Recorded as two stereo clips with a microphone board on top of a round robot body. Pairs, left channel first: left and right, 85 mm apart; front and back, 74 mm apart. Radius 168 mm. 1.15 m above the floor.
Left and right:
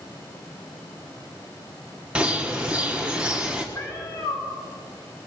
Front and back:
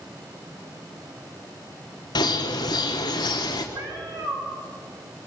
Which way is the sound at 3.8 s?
155° left.